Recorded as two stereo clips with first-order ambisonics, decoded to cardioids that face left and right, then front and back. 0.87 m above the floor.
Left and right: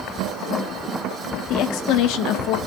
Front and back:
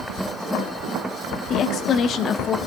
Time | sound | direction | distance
1.5 | a woman speaking | 55° left | 1.2 m